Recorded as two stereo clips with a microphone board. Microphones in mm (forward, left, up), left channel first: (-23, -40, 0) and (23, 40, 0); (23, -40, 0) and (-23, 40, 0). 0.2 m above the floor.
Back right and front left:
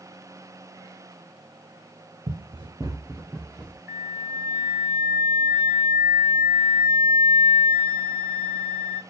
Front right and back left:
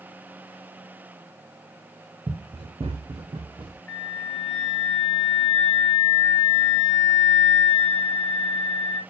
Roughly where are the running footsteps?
Left.